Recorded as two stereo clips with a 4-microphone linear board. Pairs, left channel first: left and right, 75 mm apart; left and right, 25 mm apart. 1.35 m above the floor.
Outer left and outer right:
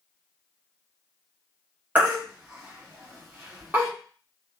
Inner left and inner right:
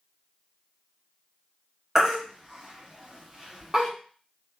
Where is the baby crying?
20° right (ahead or behind), 1.0 m.